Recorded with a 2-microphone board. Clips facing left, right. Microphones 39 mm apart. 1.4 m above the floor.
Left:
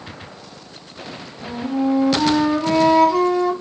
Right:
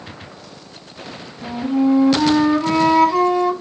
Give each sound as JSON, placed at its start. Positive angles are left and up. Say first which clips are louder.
{"t": 1.4, "sound": "a flute", "louder": "right 3 dB", "side_deg": -5, "distance_m": 1.2}